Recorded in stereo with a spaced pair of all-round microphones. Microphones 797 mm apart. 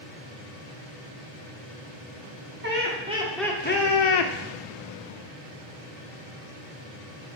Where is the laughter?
15° right (ahead or behind), 1.4 m; by 4.3 s 70° left (ahead or behind), 0.5 m.